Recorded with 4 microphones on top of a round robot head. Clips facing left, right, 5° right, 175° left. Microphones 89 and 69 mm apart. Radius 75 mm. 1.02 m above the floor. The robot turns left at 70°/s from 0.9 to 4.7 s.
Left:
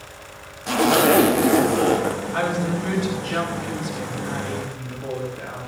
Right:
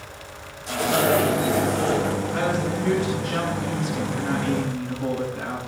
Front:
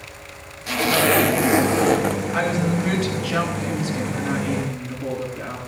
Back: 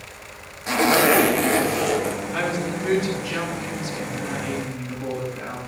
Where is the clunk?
No clunk in this recording.